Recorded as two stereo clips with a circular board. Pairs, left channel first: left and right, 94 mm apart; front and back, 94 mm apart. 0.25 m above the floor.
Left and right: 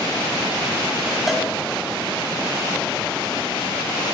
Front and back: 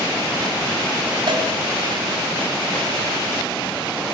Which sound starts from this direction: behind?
A cowbell, at 1.3 s.